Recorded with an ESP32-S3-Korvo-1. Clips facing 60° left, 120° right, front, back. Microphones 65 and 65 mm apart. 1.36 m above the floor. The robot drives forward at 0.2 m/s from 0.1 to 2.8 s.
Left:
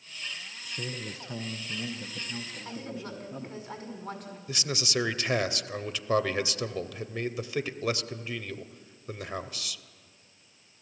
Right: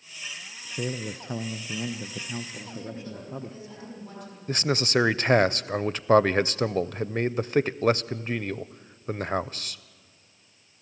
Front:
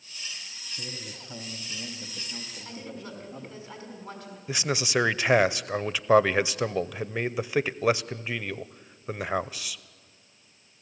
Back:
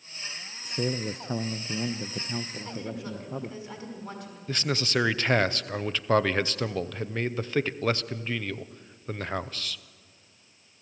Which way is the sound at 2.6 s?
105° left.